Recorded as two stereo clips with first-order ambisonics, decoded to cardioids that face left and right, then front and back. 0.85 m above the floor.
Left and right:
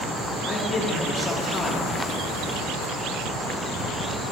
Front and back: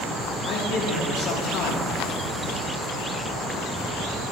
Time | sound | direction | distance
0.5 | a man speaking | 20° left | 2.5 m